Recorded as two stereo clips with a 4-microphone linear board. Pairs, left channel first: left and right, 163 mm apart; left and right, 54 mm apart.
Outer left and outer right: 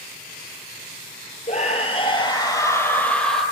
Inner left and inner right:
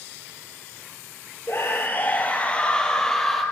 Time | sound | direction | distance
1.5 | a scream | 45° left (ahead or behind) | 3 m